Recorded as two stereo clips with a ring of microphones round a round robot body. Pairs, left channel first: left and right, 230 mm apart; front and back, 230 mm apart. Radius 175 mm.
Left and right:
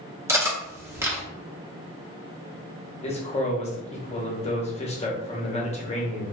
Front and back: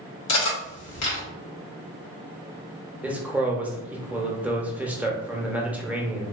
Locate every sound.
0.3 s cutlery clinking: 10° right, 0.9 m
3.0 s a man speaking: 105° left, 0.7 m